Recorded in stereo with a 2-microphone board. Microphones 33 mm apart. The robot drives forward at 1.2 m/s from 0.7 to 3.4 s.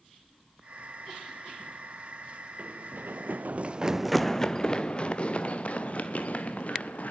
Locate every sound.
2.6 s running footsteps: 55° right (ahead or behind), 1.7 m; by 7.1 s 55° left (ahead or behind), 3.5 m